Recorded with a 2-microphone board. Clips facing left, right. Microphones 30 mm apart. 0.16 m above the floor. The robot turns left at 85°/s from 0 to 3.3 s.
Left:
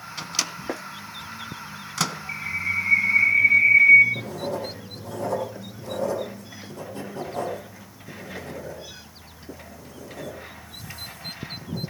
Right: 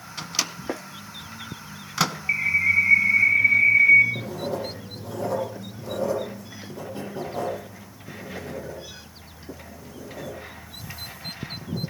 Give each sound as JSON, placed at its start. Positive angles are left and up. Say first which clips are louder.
{"t": 0.2, "sound": "a microwave", "louder": "even", "side_deg": 5, "distance_m": 1.0}
{"t": 2.3, "sound": "a bird", "louder": "right 11 dB", "azimuth_deg": -100, "distance_m": 1.8}
{"t": 4.2, "sound": "writing", "louder": "even", "side_deg": -15, "distance_m": 7.0}